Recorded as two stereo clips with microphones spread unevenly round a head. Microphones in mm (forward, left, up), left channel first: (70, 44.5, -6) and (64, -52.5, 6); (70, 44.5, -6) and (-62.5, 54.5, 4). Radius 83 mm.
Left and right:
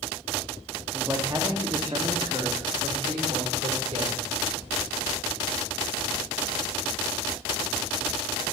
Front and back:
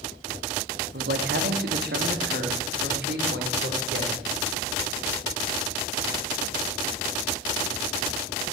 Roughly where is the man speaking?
Behind.